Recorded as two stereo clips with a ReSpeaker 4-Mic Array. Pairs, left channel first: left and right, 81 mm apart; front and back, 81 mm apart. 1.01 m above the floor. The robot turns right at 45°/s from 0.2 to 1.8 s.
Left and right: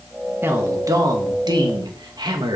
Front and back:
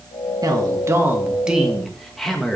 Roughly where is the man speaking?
Behind right.